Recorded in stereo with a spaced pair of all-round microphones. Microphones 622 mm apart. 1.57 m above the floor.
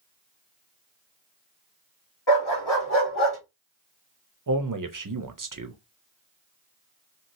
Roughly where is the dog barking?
Left.